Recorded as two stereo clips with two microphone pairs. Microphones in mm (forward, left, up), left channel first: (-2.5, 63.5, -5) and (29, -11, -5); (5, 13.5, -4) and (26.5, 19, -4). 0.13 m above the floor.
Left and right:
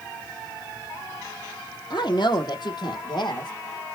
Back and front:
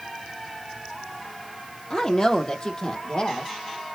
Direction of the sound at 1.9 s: 125° left.